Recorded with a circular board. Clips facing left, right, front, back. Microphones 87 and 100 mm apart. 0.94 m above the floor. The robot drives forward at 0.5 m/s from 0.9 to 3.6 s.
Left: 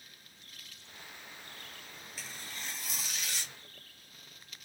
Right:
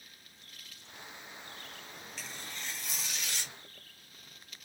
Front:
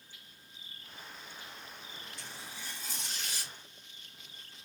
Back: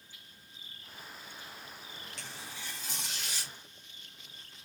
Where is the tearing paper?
175° left, 1.8 m.